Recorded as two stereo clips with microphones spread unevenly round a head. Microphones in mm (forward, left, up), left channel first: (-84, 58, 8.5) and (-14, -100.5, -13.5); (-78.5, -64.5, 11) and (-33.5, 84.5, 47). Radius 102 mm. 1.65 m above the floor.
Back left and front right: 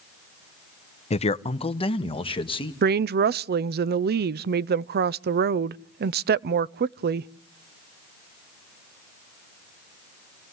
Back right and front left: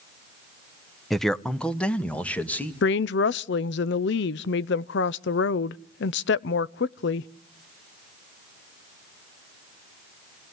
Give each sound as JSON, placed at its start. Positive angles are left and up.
{"t": 1.1, "sound": "a man speaking", "azimuth_deg": 160, "distance_m": 0.9}
{"t": 2.8, "sound": "a woman speaking", "azimuth_deg": -95, "distance_m": 0.5}